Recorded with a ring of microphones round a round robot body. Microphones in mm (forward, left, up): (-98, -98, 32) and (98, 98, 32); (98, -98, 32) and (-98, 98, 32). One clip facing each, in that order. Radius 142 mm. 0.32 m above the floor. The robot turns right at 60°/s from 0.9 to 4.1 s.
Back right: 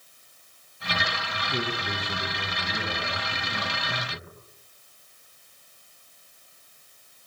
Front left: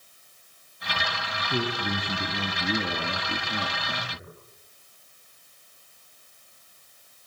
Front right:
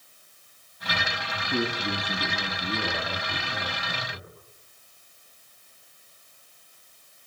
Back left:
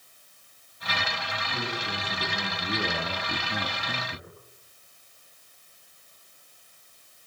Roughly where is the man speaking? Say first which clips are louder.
Front left 3 dB, front right 9 dB; ahead.